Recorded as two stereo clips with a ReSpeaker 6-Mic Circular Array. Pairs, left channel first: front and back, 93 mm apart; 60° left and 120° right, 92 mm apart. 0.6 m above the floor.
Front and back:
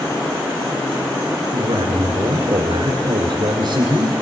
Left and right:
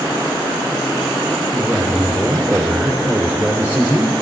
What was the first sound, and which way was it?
A man speaking, 170° left.